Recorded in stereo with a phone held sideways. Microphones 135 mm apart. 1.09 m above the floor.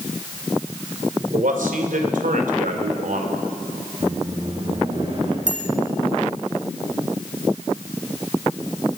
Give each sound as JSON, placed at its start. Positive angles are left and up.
{"t": 1.3, "sound": "a man speaking", "side_deg": -85, "distance_m": 3.5}
{"t": 4.0, "sound": "a microwave", "side_deg": -50, "distance_m": 8.5}
{"t": 5.5, "sound": "a bicycle bell", "side_deg": 80, "distance_m": 4.0}